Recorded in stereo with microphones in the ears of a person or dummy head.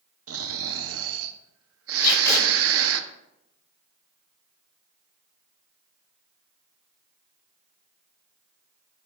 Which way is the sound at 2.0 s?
20° left (ahead or behind).